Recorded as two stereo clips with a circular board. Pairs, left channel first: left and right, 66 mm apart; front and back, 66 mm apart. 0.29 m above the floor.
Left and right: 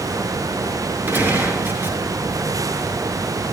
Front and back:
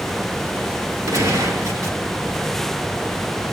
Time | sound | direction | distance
1.1 | a gunshot | 145° right | 5 m